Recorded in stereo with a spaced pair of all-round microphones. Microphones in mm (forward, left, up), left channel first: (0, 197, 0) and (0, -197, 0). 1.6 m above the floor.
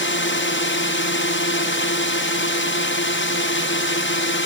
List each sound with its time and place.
0.0 s a drone: 25° left (ahead or behind)